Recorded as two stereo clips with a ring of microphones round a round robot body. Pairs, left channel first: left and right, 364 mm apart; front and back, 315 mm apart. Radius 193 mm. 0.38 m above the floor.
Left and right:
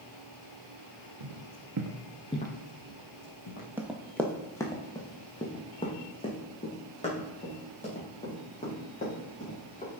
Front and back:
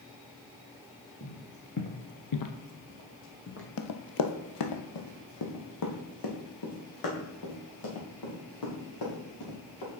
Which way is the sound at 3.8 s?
5° right.